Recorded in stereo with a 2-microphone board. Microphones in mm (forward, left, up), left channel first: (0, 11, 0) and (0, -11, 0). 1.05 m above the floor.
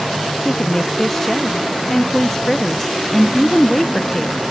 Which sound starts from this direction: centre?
A woman speaking, at 0.5 s.